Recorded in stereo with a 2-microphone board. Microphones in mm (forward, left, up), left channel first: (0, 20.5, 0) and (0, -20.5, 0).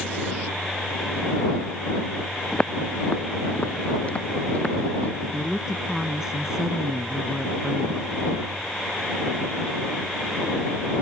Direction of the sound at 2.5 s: 20° left (ahead or behind).